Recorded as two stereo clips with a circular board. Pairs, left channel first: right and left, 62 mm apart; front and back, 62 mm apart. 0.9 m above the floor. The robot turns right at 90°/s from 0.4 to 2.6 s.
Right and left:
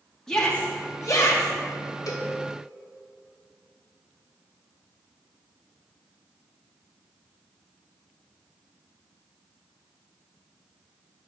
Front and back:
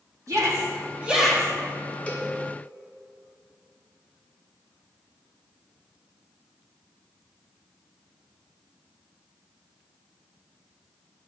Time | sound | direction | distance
0.3 | a shout | 170° right | 2 m
2.1 | a cowbell | 65° right | 1.1 m